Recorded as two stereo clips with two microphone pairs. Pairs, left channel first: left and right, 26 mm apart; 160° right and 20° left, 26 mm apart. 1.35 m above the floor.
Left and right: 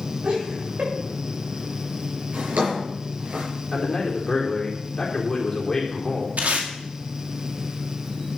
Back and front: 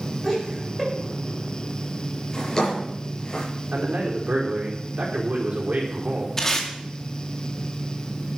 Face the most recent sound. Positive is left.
turn(degrees=-90)